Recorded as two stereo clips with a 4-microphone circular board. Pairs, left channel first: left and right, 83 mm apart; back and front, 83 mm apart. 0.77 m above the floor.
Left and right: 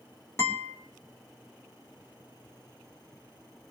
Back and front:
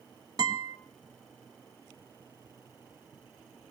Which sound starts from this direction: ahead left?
A guitar, at 0.4 s.